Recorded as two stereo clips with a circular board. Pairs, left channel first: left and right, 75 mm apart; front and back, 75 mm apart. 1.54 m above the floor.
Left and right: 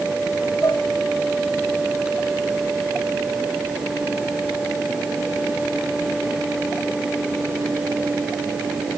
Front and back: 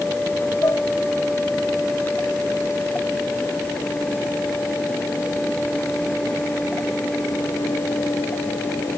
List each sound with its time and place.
0.6 s dishes clattering: 45° left